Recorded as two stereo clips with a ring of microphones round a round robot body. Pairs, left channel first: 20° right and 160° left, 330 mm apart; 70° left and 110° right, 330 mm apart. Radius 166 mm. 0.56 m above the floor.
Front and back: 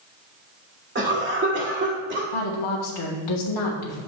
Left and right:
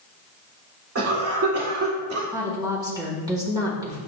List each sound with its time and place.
0.9 s a cough: 150° right, 2 m
2.3 s a woman speaking: 35° right, 1.4 m